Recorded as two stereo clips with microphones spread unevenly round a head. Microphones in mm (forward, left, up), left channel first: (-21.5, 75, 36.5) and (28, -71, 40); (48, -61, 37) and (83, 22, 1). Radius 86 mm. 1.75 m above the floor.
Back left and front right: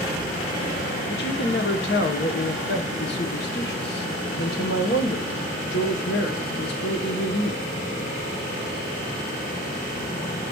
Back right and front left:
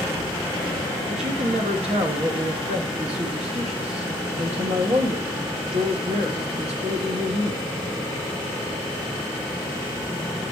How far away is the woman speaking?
About 1.1 m.